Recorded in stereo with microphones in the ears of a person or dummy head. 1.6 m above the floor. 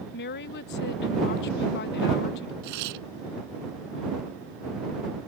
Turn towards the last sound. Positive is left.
turn(degrees=-65)  # may be behind; listen again after turning